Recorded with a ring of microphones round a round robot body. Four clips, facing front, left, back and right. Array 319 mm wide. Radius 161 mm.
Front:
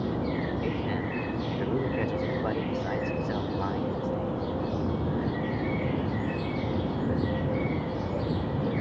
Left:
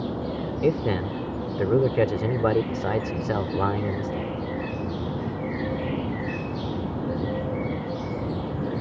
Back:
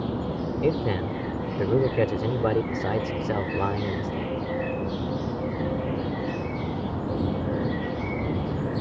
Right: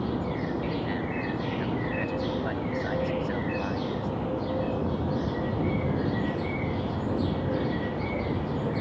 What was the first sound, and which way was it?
A man speaking, 125° left.